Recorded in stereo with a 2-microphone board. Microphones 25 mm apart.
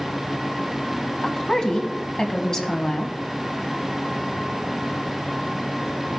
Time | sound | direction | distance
1.2 | a woman speaking | 25° left (ahead or behind) | 1.3 m